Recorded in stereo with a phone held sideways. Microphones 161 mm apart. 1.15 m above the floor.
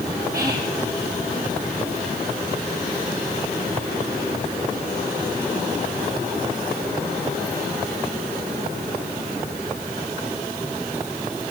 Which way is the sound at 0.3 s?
75° right (ahead or behind).